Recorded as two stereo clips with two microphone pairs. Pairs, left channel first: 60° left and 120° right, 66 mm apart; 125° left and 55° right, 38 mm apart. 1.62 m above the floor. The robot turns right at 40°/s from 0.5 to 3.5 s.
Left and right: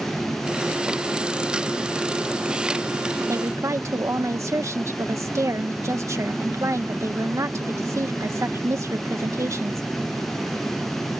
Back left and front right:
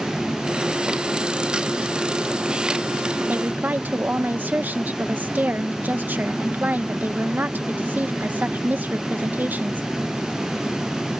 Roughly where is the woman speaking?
Right.